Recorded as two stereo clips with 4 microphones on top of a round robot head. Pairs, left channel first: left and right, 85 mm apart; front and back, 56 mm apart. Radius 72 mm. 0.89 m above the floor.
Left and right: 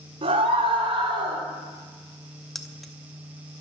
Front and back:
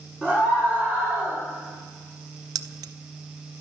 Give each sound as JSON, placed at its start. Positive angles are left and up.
{"t": 0.2, "sound": "a scream", "azimuth_deg": -75, "distance_m": 3.5}
{"t": 2.5, "sound": "keys jangling", "azimuth_deg": 180, "distance_m": 0.6}